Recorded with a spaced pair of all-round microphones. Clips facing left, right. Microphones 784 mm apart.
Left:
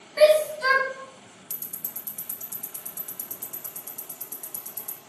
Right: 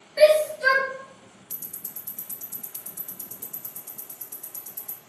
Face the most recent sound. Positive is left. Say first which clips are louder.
# left 1 dB
turn(degrees=45)  # may be behind; listen again after turning